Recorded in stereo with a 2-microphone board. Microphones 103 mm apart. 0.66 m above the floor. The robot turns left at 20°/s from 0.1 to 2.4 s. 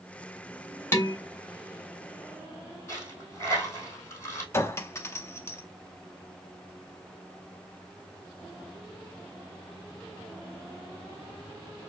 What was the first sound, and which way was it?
Dishes clattering, 25° left (ahead or behind).